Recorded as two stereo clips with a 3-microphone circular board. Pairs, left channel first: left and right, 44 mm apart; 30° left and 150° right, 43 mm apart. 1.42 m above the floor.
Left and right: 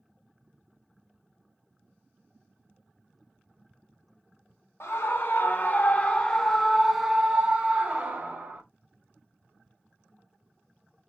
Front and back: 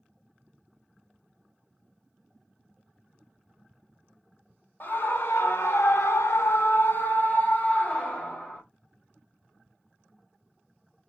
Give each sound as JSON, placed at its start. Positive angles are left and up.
{"t": 4.8, "sound": "a scream", "azimuth_deg": 65, "distance_m": 1.1}